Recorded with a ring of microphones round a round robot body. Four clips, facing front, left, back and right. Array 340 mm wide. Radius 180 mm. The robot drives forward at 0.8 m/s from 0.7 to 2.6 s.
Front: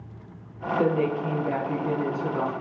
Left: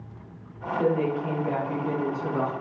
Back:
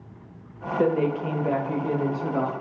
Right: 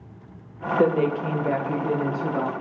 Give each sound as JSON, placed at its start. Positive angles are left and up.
{"t": 0.8, "sound": "a woman speaking", "azimuth_deg": -100, "distance_m": 1.1}